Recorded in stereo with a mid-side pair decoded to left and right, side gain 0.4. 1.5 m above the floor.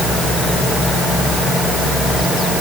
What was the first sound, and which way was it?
Only background noise.